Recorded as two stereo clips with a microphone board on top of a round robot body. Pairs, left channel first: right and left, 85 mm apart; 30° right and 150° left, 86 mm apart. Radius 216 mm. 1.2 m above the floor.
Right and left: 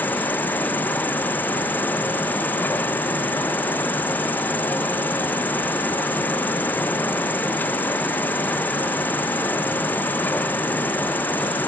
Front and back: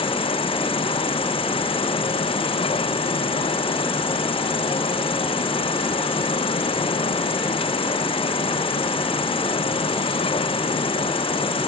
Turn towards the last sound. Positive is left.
turn(degrees=-20)